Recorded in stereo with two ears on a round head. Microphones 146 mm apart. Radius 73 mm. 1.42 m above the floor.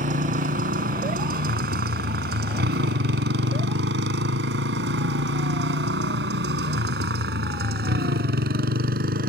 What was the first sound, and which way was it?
A motorcycle, 50° right (ahead or behind).